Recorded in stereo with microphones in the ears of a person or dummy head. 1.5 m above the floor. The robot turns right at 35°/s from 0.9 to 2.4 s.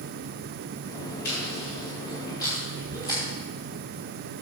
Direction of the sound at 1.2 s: 65° left (ahead or behind).